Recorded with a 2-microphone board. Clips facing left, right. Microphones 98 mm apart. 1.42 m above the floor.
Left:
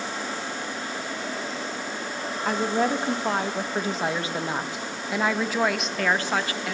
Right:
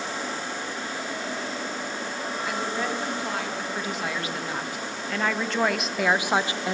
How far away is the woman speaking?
About 2.5 m.